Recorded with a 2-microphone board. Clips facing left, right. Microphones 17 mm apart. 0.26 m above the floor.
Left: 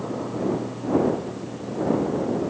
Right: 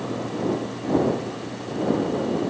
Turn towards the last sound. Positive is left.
No sound to turn to.